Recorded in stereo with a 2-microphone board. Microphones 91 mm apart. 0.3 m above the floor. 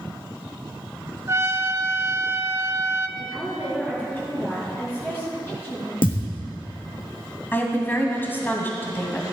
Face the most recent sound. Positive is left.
turn(degrees=20)  # may be behind; listen again after turning